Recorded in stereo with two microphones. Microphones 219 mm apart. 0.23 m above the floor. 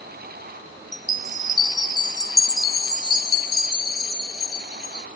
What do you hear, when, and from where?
0.9 s a chime: 20° left (ahead or behind)